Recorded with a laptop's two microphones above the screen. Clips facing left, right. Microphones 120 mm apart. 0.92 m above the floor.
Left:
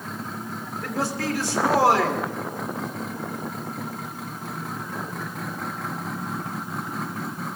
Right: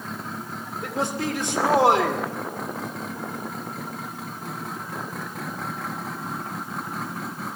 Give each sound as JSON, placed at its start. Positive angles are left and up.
{"t": 0.8, "sound": "a man speaking", "side_deg": -25, "distance_m": 2.5}